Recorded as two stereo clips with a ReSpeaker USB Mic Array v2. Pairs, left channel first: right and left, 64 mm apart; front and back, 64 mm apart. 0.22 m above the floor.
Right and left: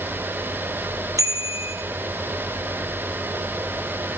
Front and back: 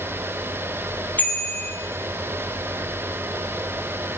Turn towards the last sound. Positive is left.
turn(degrees=65)